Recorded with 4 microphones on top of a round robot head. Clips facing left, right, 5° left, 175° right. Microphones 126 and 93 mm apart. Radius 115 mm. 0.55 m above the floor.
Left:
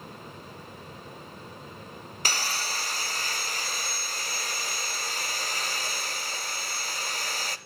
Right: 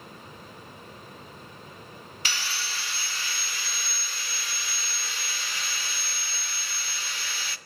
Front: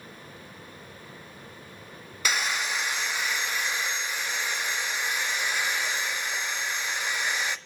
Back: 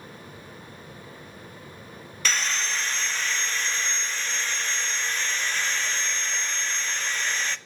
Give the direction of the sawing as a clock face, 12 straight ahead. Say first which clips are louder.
Left 4 dB, even; 9 o'clock.